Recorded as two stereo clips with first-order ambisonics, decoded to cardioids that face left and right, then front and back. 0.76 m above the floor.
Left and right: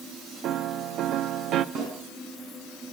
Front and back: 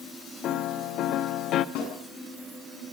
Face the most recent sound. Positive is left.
turn(degrees=-35)